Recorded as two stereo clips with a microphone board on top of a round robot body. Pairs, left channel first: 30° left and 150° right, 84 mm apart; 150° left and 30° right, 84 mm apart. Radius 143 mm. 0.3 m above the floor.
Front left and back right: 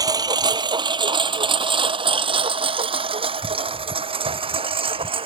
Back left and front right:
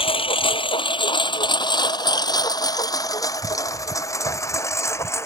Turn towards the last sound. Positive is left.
turn(degrees=-150)